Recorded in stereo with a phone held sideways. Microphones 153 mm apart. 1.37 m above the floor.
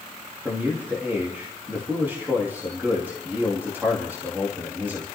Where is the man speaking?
15° right (ahead or behind), 2.5 m.